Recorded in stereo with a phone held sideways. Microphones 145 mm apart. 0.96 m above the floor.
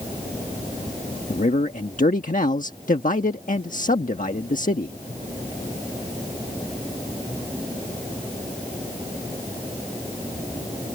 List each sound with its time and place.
1.3 s a man speaking: 60° left (ahead or behind)